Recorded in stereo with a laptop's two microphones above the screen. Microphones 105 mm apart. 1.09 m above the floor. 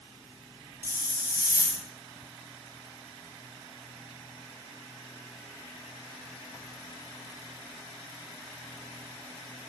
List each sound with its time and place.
0.8 s a hiss: 35° left (ahead or behind), 1.1 m